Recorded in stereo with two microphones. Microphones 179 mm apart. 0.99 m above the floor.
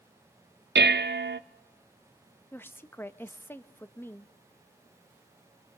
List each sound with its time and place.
0.8 s dishes clattering: 75° right (ahead or behind), 0.6 m
2.5 s a woman speaking: 10° left (ahead or behind), 0.7 m